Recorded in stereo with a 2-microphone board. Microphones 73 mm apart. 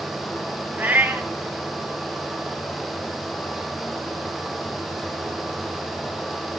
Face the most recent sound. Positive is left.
turn(degrees=-25)  # may be behind; listen again after turning